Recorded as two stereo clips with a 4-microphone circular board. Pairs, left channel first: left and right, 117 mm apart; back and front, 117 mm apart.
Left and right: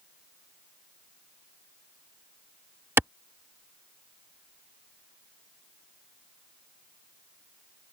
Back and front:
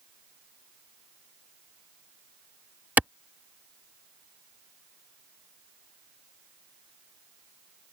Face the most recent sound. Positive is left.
turn(degrees=-55)